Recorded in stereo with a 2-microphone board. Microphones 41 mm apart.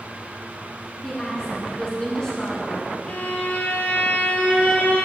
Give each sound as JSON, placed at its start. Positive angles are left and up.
{"t": 1.0, "sound": "a woman speaking", "side_deg": 20, "distance_m": 1.2}
{"t": 3.1, "sound": "a violin", "side_deg": 40, "distance_m": 1.1}